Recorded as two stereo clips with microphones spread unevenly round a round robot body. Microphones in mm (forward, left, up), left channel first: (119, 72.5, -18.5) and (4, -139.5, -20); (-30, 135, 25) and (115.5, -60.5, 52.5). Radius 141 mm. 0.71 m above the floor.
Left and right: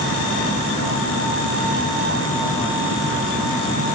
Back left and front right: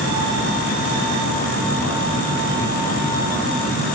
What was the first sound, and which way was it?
Only background noise.